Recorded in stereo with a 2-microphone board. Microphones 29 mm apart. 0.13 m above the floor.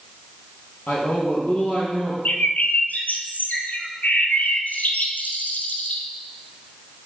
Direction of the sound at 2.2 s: 75° left (ahead or behind).